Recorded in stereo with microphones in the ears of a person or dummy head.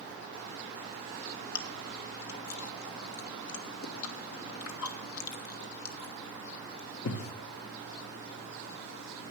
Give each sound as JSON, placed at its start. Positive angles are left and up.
{"t": 1.6, "sound": "chewing", "side_deg": 85, "distance_m": 1.4}